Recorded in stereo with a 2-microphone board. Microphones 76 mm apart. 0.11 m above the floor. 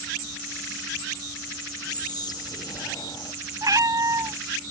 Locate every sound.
1.9 s whispering: 60° left (ahead or behind)
3.6 s a cat meowing: 50° right (ahead or behind)